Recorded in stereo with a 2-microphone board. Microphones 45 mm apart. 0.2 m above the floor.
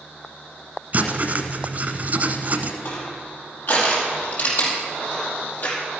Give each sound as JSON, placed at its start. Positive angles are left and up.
{"t": 0.9, "sound": "writing", "side_deg": -45, "distance_m": 1.2}
{"t": 2.9, "sound": "crushing", "side_deg": 50, "distance_m": 4.5}